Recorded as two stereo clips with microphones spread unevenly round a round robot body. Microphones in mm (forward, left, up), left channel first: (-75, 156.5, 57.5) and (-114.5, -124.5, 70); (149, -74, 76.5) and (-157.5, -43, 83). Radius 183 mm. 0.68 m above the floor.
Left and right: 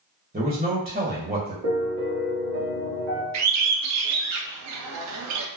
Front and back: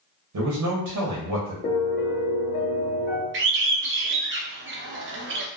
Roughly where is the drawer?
I don't hear a drawer.